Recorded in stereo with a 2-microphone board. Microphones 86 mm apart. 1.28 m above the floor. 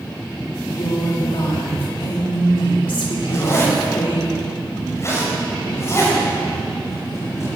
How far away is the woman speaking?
About 3 m.